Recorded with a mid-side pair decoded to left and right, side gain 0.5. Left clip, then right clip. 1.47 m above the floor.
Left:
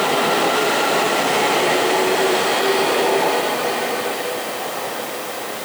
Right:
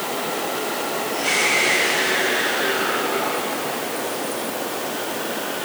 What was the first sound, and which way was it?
Only background noise.